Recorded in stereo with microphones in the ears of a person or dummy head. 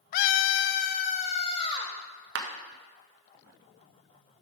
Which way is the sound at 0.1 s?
50° left (ahead or behind).